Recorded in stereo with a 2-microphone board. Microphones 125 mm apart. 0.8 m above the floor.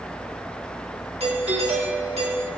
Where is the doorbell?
55° right (ahead or behind), 2.5 m.